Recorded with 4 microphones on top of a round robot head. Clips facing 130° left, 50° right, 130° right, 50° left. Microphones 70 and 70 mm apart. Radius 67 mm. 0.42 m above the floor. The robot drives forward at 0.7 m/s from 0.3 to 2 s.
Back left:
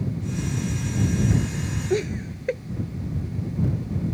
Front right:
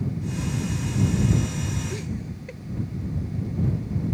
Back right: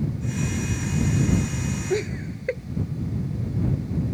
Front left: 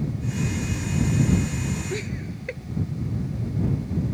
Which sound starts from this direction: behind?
Laughter, at 1.9 s.